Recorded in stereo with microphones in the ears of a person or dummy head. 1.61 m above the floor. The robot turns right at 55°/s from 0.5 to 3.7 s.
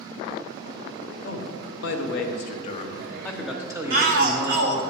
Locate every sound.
1.2 s a man speaking: 55° left, 0.9 m; by 4.9 s 170° right, 0.9 m
3.9 s a shout: 60° right (ahead or behind), 1.1 m